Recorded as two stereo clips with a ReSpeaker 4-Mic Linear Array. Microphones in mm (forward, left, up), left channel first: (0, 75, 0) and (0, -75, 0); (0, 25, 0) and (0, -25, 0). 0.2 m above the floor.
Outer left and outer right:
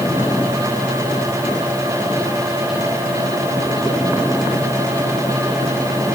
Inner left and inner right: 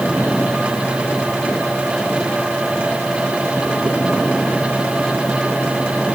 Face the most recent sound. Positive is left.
No sound to turn to.